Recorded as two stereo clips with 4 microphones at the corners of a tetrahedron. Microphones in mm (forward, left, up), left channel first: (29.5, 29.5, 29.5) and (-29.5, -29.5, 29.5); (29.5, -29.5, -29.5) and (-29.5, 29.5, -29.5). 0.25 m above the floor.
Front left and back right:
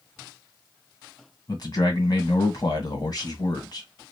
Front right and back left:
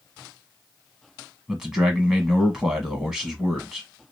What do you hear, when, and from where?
1.5 s a man speaking: 55° left, 1.4 m